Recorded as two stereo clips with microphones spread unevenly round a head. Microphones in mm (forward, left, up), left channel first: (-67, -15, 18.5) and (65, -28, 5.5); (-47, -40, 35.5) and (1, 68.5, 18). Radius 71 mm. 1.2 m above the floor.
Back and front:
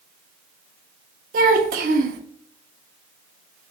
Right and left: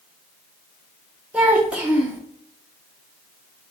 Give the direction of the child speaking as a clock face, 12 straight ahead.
1 o'clock.